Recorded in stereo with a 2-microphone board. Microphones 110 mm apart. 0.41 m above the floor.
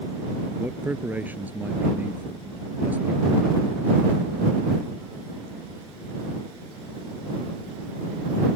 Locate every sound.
0.6 s a man speaking: 15° right (ahead or behind)